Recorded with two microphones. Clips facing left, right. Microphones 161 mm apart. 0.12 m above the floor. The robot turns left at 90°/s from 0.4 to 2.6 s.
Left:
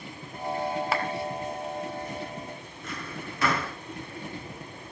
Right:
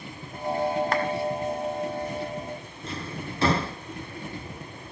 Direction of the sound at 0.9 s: 5° left (ahead or behind).